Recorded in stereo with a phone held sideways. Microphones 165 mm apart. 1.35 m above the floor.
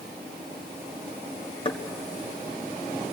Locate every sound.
1.6 s knocking: 30° left (ahead or behind), 1.7 m